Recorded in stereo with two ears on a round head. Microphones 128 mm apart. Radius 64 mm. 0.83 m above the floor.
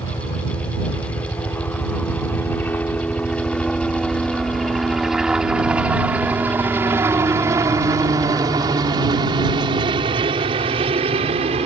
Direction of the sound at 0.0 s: 25° left (ahead or behind).